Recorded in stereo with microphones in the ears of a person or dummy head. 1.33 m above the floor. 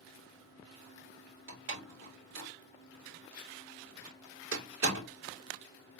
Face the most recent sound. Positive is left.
turn(degrees=-85)